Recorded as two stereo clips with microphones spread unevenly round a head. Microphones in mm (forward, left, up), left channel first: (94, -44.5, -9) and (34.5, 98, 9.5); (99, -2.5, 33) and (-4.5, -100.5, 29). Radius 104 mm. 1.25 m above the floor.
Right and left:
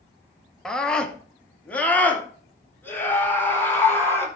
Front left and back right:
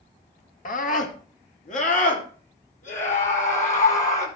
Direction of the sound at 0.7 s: 20° left.